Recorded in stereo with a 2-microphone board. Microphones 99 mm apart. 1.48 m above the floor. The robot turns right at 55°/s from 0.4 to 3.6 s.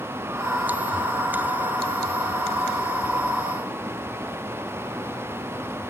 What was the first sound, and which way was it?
Only background noise.